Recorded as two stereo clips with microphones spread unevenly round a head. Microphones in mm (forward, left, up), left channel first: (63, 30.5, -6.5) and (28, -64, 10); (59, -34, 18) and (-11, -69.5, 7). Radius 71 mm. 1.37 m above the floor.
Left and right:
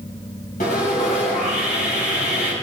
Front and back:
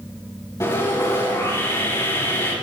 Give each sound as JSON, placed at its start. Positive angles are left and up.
{"t": 0.6, "sound": "sawing", "azimuth_deg": 95, "distance_m": 5.5}